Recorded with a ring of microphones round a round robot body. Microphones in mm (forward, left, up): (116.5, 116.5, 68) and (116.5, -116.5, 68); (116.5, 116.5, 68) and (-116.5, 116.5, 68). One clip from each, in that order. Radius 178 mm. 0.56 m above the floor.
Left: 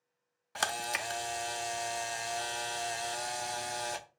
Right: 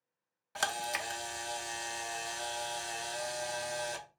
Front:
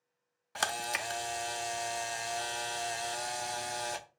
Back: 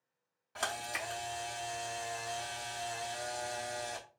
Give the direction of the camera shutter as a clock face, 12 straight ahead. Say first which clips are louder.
Left 1 dB, front 4 dB; 12 o'clock.